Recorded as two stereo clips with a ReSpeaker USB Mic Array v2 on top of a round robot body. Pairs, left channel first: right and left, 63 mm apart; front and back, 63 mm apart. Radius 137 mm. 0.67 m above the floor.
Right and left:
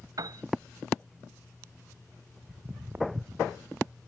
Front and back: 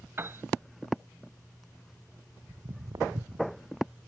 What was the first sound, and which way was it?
A piano, 120° left.